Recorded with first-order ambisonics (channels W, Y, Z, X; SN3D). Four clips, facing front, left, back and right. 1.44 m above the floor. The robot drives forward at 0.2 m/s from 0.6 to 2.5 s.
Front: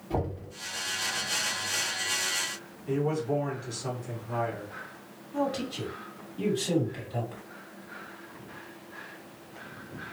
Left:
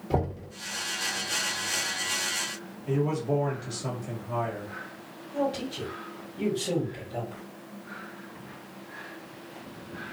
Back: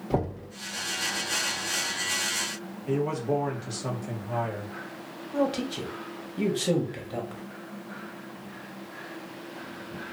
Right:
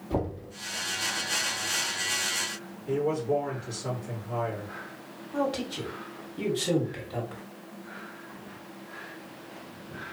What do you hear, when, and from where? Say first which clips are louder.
0.1 s knocking: left 2 dB, back 3 dB; 140° left, 1.4 m
2.9 s a man speaking: even, back 1 dB; 145° left, 1.8 m
5.3 s a man speaking: even, back 3 dB; 155° right, 1.4 m